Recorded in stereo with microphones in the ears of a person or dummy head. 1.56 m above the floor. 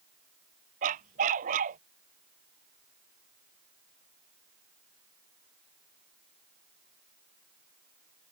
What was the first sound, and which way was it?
A dog barking, 40° right (ahead or behind).